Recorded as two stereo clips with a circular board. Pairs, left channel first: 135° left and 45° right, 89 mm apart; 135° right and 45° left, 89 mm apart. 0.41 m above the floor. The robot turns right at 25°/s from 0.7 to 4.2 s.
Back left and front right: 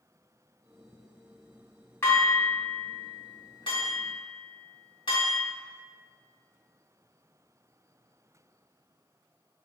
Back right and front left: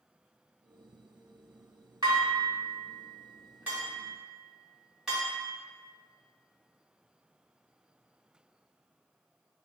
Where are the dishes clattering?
75° left, 1.5 m; by 5.4 s 130° left, 1.5 m.